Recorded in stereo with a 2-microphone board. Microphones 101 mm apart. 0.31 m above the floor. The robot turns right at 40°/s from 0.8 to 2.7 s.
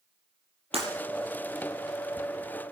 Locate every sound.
0.7 s breaking glass: 75° right (ahead or behind), 5.5 m